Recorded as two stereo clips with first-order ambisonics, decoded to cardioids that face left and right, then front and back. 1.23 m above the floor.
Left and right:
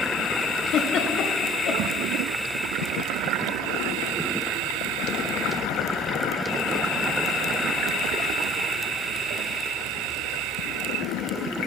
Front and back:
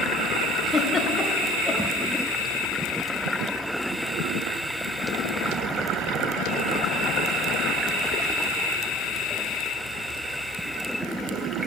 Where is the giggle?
75° left, 0.8 m.